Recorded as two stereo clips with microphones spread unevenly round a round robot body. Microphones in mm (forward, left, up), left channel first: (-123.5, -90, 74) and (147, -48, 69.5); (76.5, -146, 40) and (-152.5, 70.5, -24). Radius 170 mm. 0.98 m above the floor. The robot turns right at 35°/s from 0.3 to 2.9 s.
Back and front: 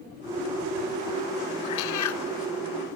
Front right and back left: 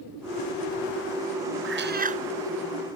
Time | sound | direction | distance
1.6 | a cat meowing | 170° right | ?